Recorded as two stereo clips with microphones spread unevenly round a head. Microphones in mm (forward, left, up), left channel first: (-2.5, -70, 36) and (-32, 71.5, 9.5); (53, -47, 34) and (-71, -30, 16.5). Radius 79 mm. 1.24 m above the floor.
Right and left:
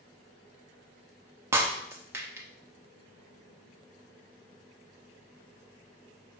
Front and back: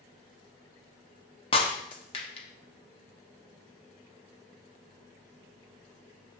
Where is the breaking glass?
20° left, 0.9 m.